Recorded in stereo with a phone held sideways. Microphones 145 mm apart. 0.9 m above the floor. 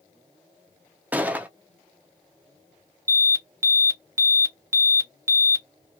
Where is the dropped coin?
I don't hear a dropped coin.